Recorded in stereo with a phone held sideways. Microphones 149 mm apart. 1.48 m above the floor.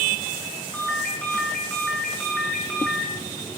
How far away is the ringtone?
About 7.5 m.